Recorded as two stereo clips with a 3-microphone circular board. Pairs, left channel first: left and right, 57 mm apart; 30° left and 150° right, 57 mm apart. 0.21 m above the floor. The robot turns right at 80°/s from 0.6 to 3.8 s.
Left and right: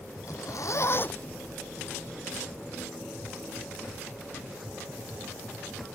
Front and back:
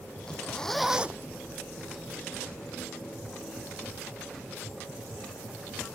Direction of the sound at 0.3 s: 105° left.